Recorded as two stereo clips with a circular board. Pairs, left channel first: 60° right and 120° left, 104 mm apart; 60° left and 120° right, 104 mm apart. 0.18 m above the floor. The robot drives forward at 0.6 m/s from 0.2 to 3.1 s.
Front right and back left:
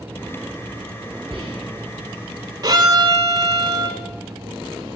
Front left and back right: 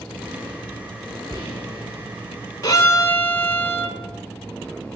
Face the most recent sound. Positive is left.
turn(degrees=120)